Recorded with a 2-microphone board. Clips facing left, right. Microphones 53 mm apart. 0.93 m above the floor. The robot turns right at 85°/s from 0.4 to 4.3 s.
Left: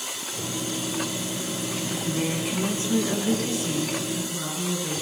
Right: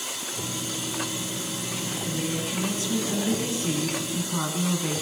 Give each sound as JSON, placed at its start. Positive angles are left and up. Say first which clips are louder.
{"t": 1.9, "sound": "a woman speaking", "louder": "left 2 dB", "azimuth_deg": 75, "distance_m": 7.5}